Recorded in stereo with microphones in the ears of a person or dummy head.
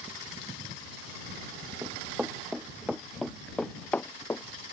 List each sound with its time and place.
1.8 s running footsteps: 10° right (ahead or behind); by 4.4 s 10° left (ahead or behind)